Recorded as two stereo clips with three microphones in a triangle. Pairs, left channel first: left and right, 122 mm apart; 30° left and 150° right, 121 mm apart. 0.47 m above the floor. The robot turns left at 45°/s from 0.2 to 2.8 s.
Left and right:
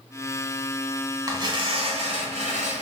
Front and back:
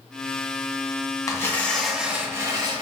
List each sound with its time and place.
1.3 s tearing paper: 35° right, 1.0 m; by 2.8 s 105° right, 1.0 m